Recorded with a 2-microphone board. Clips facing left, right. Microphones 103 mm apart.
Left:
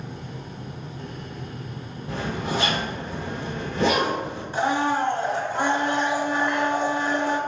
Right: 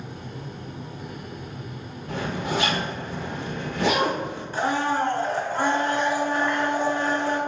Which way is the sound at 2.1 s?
30° left (ahead or behind).